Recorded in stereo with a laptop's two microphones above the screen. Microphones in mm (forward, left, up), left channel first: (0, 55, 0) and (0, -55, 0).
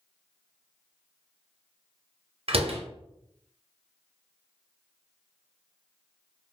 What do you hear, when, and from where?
2.5 s a door slam: 60° right (ahead or behind), 0.6 m